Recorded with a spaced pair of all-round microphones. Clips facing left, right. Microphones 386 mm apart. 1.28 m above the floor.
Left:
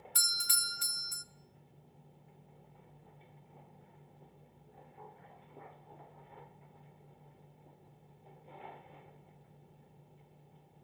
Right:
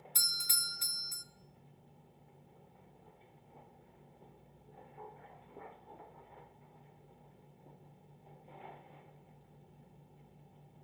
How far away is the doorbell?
About 0.5 m.